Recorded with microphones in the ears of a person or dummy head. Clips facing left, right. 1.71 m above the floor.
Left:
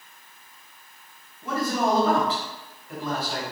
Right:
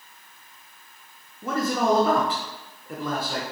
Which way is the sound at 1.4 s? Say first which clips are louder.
Right 1 dB; 45° right (ahead or behind).